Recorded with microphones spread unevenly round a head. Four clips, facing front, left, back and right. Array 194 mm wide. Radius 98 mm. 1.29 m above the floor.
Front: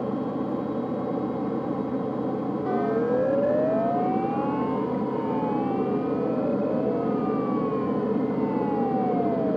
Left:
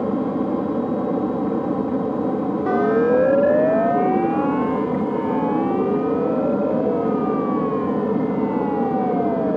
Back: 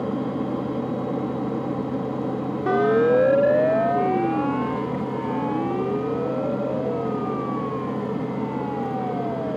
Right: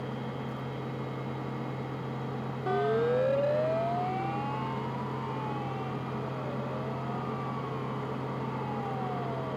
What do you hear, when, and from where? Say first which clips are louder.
0.0 s an aircraft: left 16 dB, back 2 dB; 100° left; by 9.6 s 75° left
2.7 s a siren: left 9 dB, back 7 dB; 145° left; by 9.6 s 110° left